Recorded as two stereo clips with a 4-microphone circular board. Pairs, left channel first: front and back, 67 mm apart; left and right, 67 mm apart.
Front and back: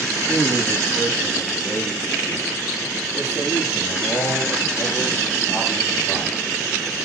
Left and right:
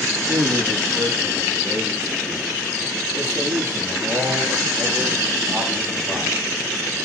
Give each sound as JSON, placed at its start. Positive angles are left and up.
{"t": 0.3, "sound": "a man speaking", "azimuth_deg": -65, "distance_m": 4.0}